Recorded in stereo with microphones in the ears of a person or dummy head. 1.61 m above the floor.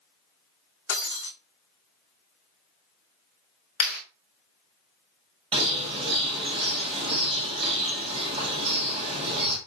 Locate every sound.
0.9 s breaking glass: 60° left (ahead or behind), 5 m
3.8 s a clap: 75° left (ahead or behind), 3 m
5.5 s a bird: 30° right (ahead or behind), 1.2 m